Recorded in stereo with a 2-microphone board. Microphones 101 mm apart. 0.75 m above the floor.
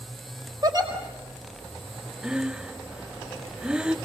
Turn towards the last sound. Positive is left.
turn(degrees=-10)  # may be behind; listen again after turning